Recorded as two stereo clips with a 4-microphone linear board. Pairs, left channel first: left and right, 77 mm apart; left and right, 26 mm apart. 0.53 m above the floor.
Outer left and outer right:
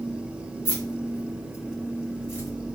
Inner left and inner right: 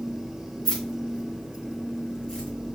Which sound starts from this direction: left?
Keys jangling, at 0.7 s.